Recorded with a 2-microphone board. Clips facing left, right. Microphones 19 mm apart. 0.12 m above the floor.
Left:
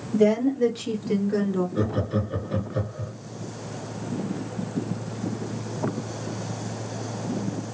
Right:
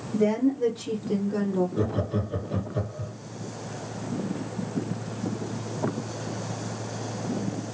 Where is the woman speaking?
65° left (ahead or behind), 2.5 m; by 1.6 s 40° left (ahead or behind), 1.4 m.